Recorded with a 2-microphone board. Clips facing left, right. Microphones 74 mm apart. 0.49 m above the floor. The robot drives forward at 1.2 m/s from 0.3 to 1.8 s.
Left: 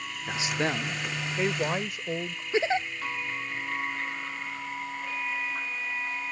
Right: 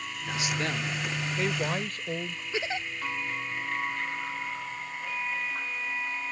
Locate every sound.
0.3 s a woman speaking: 25° left (ahead or behind); by 2.4 s 15° left (ahead or behind)
2.5 s a giggle: 35° left (ahead or behind)